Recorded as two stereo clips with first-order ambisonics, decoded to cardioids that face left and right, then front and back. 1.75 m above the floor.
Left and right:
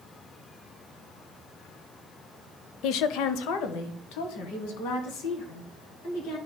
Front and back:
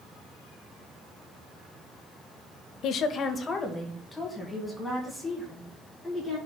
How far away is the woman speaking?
About 0.5 m.